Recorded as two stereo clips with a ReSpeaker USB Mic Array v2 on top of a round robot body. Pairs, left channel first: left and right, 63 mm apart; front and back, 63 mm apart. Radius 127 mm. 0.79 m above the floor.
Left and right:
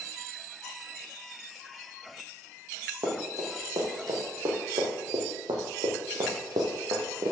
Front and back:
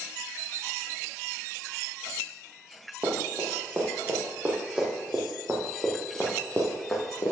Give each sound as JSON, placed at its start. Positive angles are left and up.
{"t": 3.0, "sound": "running footsteps", "azimuth_deg": -125, "distance_m": 2.5}